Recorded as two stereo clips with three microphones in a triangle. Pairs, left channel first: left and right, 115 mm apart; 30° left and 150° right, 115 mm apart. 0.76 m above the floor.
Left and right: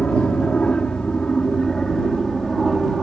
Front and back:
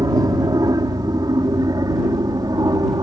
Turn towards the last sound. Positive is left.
turn(degrees=180)